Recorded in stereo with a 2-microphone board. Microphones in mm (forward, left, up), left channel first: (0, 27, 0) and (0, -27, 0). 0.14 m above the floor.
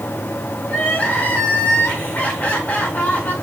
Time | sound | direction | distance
0.7 | crying | 30° left (ahead or behind) | 5 m